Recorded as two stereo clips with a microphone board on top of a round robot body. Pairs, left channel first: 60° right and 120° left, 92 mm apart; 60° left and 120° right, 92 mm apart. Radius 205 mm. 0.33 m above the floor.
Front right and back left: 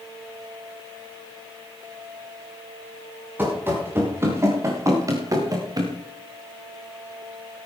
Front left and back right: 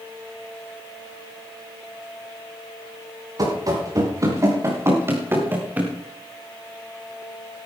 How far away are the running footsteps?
About 5.5 m.